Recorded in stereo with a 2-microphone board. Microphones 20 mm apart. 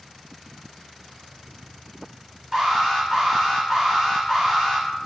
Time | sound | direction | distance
2.5 | an alarm | 25° right (ahead or behind) | 1.5 m